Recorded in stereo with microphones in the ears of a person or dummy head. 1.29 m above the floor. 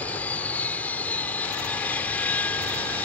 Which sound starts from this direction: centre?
An aircraft, at 0.0 s.